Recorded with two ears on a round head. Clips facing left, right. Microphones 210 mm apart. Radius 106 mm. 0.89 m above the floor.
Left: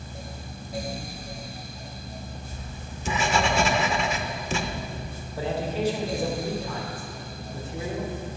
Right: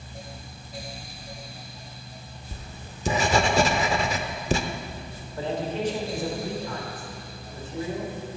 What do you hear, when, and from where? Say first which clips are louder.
2.5 s writing: left 3 dB; 30° right (ahead or behind), 0.6 m
5.4 s a man speaking: left 1 dB; 10° left (ahead or behind), 1.8 m